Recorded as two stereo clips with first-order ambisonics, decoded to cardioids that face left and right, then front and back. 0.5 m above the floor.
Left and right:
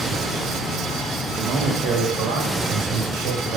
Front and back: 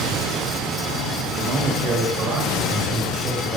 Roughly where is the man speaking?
Behind right.